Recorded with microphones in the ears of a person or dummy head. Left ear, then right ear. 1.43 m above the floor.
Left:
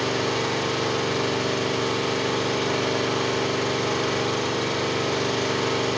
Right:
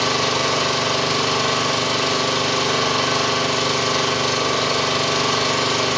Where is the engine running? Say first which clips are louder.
Right 5 dB; 40° right (ahead or behind), 4 m.